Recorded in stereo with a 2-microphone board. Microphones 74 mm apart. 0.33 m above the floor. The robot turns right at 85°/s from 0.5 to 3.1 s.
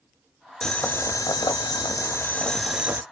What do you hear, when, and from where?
0.6 s boiling: 10° left, 0.6 m; by 3.0 s 145° right, 0.6 m